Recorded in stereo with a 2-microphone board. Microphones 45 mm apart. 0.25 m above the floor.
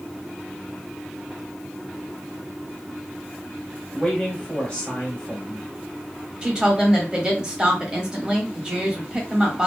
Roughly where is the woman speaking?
Centre.